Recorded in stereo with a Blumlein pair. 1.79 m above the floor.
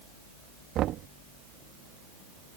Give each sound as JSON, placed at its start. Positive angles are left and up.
{"t": 0.8, "sound": "knocking", "azimuth_deg": -35}